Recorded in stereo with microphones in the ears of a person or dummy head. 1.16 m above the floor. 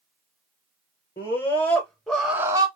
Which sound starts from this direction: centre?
A scream, at 1.2 s.